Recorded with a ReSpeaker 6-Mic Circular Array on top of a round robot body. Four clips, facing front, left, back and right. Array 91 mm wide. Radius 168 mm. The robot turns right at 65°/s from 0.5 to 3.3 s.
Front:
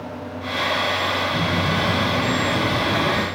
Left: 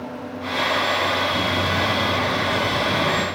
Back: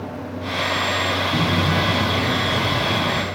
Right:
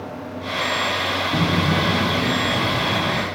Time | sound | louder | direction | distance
1.3 | footsteps | right 2 dB, back 2 dB | 115° right | 1.5 m